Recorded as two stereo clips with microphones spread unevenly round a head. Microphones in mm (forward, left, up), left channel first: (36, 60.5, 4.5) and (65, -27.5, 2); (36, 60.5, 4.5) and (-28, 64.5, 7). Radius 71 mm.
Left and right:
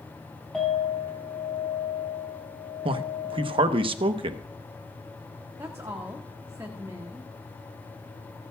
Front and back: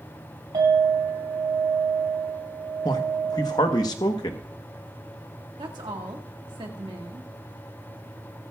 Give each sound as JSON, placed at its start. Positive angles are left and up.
{"t": 0.5, "sound": "a clink", "azimuth_deg": -165, "distance_m": 6.0}
{"t": 2.9, "sound": "a man speaking", "azimuth_deg": -45, "distance_m": 0.9}
{"t": 5.6, "sound": "a woman speaking", "azimuth_deg": -145, "distance_m": 1.6}